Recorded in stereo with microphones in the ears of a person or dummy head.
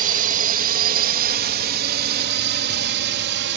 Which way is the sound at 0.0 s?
45° right (ahead or behind).